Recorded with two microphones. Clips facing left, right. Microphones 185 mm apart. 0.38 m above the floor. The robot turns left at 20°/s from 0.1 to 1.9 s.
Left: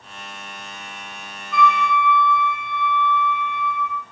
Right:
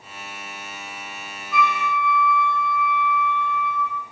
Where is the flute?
Centre (ahead or behind), 4.5 m; by 4.0 s 5° right (ahead or behind), 4.5 m.